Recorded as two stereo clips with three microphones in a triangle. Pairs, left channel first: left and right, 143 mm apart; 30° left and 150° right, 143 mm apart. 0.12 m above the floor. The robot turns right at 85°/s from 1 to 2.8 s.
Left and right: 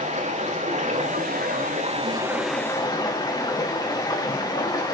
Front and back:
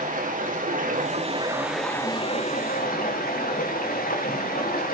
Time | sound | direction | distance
0.0 | running water | 125° right | 3.5 m